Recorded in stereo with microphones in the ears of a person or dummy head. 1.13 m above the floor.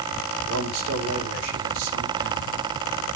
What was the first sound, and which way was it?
A man speaking, 80° right.